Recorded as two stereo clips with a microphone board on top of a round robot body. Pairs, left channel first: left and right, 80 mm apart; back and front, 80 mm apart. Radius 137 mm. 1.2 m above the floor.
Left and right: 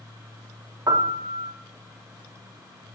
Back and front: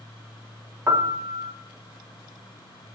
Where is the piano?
55° right, 1.4 m.